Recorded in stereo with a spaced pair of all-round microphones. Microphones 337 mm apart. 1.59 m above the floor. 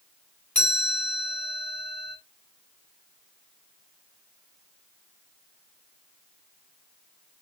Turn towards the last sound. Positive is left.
turn(degrees=5)  # may be behind; listen again after turning